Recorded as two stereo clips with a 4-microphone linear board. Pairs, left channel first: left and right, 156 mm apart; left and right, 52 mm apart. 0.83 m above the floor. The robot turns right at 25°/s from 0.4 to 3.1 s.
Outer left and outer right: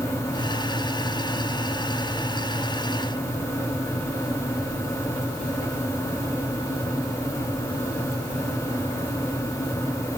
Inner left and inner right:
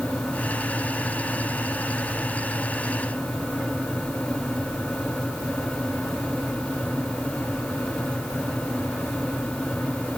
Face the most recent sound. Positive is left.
No sound to turn to.